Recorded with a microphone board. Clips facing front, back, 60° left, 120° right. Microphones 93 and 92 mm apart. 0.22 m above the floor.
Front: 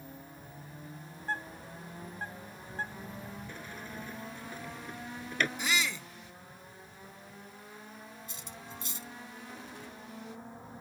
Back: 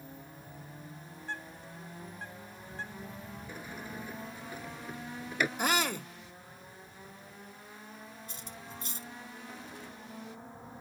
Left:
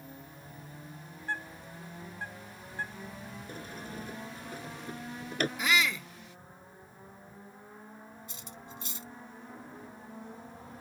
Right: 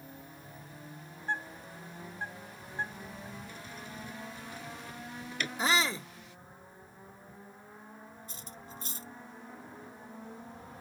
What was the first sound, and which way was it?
A bird, 50° right.